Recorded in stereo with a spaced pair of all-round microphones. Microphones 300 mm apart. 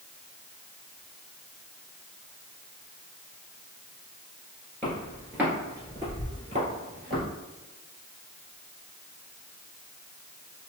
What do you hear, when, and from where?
4.8 s footsteps: 5° left (ahead or behind), 1.8 m; by 7.2 s 35° right (ahead or behind), 2.0 m